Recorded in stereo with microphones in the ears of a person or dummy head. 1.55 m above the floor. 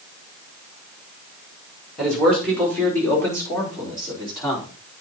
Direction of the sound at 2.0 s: Centre (ahead or behind).